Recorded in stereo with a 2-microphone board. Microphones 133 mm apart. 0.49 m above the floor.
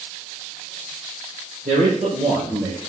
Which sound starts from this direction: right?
A man speaking, at 1.6 s.